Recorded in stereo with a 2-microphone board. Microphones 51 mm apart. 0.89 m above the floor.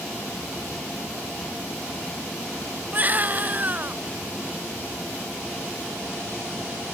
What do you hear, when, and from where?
2.9 s a baby crying: 30° right (ahead or behind)